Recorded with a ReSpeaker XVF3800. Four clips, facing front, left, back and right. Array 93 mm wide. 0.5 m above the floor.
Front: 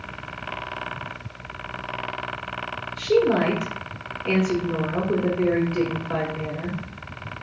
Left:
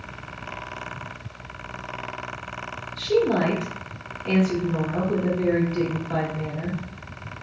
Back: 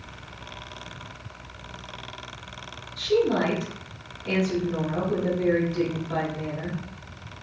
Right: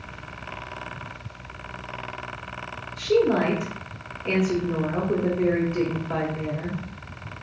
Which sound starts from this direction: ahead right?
A woman speaking, at 3.0 s.